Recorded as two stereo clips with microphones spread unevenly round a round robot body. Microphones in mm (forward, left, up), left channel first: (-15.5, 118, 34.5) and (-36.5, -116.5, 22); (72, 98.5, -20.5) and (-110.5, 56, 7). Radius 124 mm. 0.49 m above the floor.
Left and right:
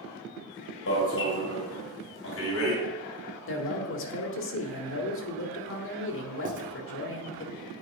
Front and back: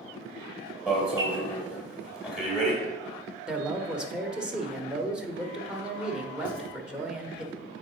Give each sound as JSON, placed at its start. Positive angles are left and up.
{"t": 0.9, "sound": "an alarm", "azimuth_deg": 105, "distance_m": 2.5}
{"t": 3.5, "sound": "a man speaking", "azimuth_deg": 100, "distance_m": 1.4}
{"t": 6.5, "sound": "writing", "azimuth_deg": -130, "distance_m": 1.1}